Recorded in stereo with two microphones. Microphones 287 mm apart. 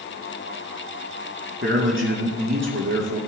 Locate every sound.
1.6 s a man speaking: 45° right (ahead or behind), 4.5 m